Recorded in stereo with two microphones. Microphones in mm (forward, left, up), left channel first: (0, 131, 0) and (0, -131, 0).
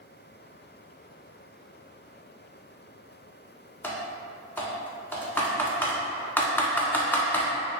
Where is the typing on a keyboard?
10° left (ahead or behind), 0.5 m.